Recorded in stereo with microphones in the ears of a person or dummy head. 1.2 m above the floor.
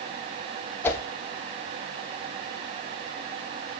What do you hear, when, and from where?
0.8 s a whoosh: 10° left (ahead or behind), 1.2 m